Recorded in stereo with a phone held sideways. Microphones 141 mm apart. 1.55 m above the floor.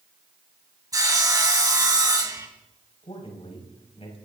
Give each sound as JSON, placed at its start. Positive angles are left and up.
{"t": 0.9, "sound": "sawing", "side_deg": -30, "distance_m": 2.0}
{"t": 3.0, "sound": "a man speaking", "side_deg": 45, "distance_m": 5.5}